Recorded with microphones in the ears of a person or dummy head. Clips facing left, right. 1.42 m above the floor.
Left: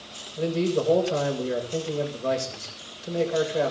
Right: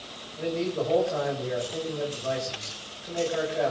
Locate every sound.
0.4 s a man speaking: 55° left (ahead or behind), 7.5 m